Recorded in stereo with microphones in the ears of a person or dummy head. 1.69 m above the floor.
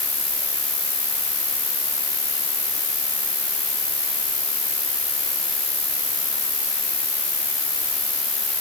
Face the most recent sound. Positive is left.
turn(degrees=25)  # may be behind; listen again after turning